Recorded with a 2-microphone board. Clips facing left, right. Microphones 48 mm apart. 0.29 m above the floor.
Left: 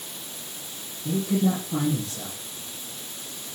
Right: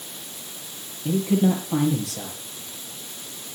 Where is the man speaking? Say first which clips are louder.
Right 3 dB; 80° right, 6 m.